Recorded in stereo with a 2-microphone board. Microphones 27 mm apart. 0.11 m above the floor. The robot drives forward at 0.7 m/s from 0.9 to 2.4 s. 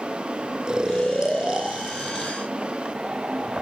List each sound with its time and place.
0.7 s snoring: 35° right (ahead or behind), 1.0 m; by 2.3 s 30° right (ahead or behind), 1.1 m